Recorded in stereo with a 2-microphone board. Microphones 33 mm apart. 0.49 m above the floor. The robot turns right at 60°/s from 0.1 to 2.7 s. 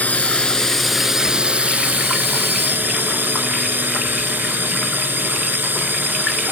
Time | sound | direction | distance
0.0 | a drone | 130° left | ?